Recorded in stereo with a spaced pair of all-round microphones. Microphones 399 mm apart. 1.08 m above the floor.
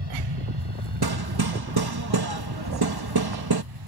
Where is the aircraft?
75° right (ahead or behind).